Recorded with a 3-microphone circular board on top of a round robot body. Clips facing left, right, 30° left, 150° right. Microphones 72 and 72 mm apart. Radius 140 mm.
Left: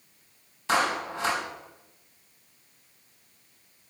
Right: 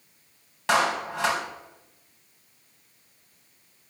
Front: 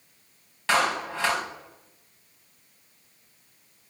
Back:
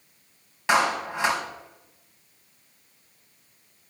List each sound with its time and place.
0.7 s a clap: 75° right, 4.5 m